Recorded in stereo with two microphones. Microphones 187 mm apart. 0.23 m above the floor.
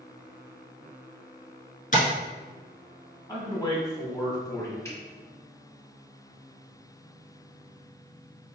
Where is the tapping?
45° left (ahead or behind), 1.1 m.